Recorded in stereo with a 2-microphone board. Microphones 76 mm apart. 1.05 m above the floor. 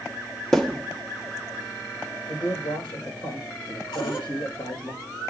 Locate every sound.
0.5 s a thud: 5° left (ahead or behind), 0.8 m
2.3 s a man speaking: 85° left, 4.5 m
3.9 s a cupboard door: 75° left (ahead or behind), 2 m